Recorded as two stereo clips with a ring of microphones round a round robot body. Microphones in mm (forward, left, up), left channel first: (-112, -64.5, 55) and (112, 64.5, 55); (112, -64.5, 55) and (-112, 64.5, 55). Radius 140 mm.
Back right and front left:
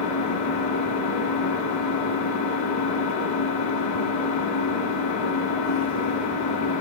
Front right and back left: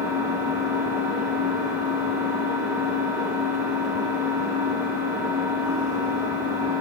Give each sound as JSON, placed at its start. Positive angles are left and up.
{"t": 0.0, "sound": "an engine running", "azimuth_deg": -135, "distance_m": 2.5}